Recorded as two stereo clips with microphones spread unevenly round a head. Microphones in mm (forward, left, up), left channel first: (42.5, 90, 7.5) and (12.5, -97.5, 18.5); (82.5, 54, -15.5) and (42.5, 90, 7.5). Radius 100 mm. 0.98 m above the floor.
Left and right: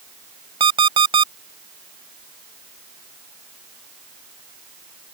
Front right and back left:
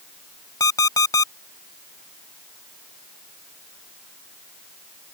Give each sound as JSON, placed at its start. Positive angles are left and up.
{"t": 0.6, "sound": "an alarm clock", "azimuth_deg": -35}